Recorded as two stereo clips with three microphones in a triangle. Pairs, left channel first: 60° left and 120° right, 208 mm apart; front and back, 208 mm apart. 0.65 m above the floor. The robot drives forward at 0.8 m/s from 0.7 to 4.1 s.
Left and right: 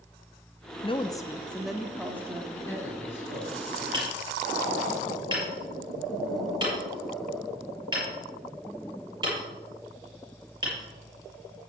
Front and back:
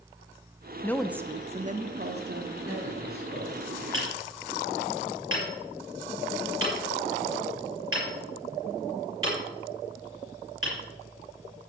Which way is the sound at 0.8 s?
65° left.